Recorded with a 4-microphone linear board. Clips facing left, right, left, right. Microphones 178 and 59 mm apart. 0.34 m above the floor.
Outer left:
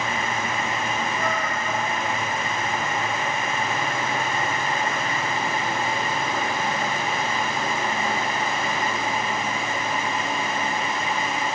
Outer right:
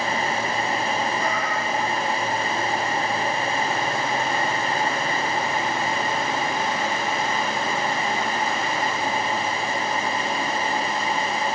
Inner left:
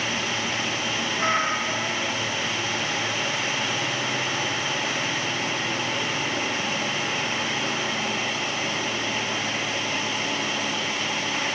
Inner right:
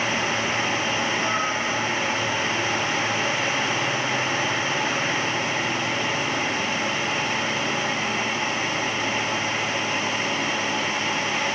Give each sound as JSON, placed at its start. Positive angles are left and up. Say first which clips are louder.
{"t": 1.2, "sound": "a cat meowing", "louder": "outer right 1 dB, even", "side_deg": 50, "distance_m": 1.3}